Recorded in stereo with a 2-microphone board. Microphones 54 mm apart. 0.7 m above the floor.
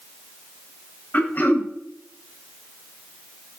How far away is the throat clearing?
About 1.4 m.